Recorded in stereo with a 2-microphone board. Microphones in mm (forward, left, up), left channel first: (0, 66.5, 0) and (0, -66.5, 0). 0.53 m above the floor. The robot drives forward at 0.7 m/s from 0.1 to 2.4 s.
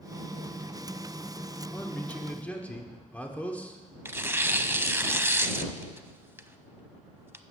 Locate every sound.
1.7 s a man speaking: 15° left (ahead or behind), 1.0 m; by 4.0 s 10° left (ahead or behind), 1.3 m
4.0 s tearing paper: 20° right (ahead or behind), 0.5 m